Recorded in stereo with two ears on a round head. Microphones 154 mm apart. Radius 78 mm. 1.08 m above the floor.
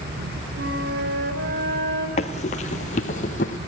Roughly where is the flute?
Right.